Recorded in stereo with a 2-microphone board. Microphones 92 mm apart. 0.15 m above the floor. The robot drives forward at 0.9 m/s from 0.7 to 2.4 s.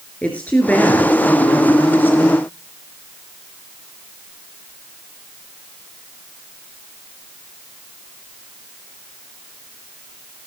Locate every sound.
0.2 s a woman speaking: 15° left (ahead or behind), 3 m; by 2.4 s 25° left (ahead or behind), 1.9 m